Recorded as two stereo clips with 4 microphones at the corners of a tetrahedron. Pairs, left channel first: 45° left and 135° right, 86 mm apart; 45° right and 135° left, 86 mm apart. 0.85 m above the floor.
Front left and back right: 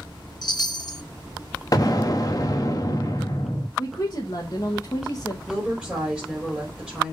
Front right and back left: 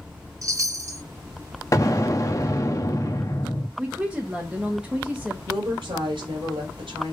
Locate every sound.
0.4 s a chime: 80° left, 0.8 m
1.7 s an explosion: straight ahead, 0.9 m
3.8 s a woman speaking: 60° left, 1.2 m
5.5 s a woman speaking: 145° left, 3 m